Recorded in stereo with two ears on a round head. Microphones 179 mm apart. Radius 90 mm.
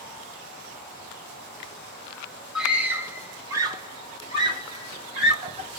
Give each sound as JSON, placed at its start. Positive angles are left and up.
{"t": 2.5, "sound": "a scream", "side_deg": -5, "distance_m": 1.3}